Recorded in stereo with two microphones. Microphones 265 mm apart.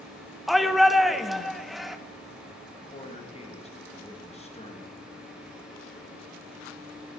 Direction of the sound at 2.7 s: 20° left (ahead or behind).